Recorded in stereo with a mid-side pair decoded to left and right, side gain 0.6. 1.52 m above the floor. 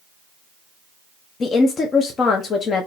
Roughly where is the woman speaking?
Ahead left.